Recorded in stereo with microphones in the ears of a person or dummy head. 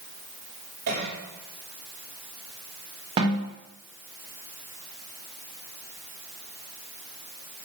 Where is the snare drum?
35° right (ahead or behind), 4 m.